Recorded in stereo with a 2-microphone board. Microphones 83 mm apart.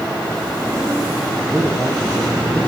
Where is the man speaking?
10° right (ahead or behind), 5.5 m.